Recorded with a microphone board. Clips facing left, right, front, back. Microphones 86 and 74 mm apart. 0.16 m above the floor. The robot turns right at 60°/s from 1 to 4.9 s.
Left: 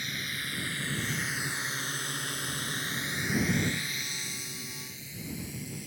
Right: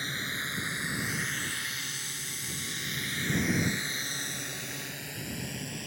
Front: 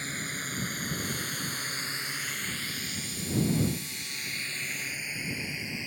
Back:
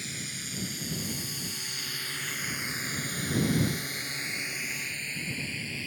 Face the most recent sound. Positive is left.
turn(degrees=-70)